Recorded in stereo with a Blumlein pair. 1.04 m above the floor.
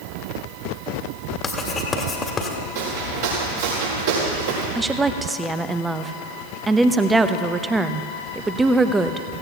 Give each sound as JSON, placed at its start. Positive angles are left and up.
{"t": 1.4, "sound": "writing", "azimuth_deg": 15, "distance_m": 1.7}
{"t": 2.8, "sound": "footsteps", "azimuth_deg": -55, "distance_m": 4.5}
{"t": 4.8, "sound": "a woman speaking", "azimuth_deg": -10, "distance_m": 0.7}